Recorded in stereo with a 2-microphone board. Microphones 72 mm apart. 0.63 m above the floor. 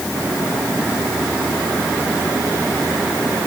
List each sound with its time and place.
Only background noise.